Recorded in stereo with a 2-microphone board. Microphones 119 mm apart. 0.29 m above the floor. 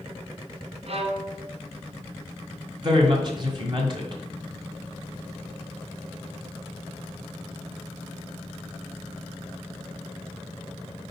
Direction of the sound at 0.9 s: 60° right (ahead or behind).